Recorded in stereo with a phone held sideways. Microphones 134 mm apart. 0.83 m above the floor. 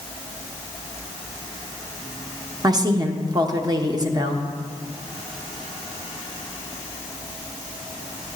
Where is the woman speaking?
30° right (ahead or behind), 0.7 m.